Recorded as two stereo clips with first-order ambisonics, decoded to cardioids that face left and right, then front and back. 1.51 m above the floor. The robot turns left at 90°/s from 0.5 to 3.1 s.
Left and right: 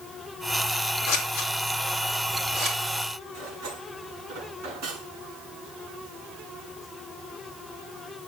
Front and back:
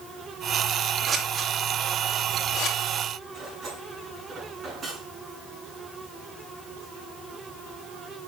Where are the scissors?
110° left, 4 m; by 2.8 s 45° right, 4 m.